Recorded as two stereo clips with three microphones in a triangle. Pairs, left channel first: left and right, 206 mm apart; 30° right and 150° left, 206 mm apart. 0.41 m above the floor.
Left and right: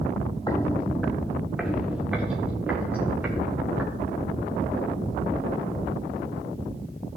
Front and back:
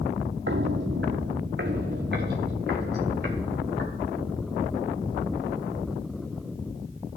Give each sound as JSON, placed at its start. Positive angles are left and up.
{"t": 0.5, "sound": "footsteps", "azimuth_deg": 160, "distance_m": 0.7}